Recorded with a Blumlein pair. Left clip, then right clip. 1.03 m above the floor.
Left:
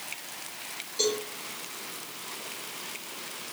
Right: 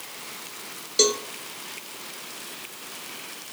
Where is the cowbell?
35° right, 0.9 m.